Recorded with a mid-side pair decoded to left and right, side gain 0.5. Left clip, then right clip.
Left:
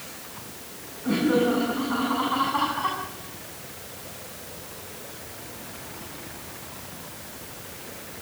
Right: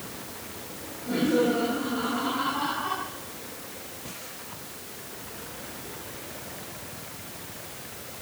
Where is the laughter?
65° left, 10 m; by 3.0 s 55° left, 8.5 m.